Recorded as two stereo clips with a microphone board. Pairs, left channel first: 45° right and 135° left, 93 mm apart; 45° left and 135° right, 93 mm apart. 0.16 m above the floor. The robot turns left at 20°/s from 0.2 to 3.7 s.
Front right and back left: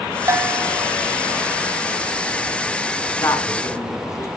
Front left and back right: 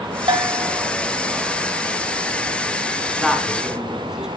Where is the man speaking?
45° right, 1.5 m; by 4.3 s 55° right, 1.5 m.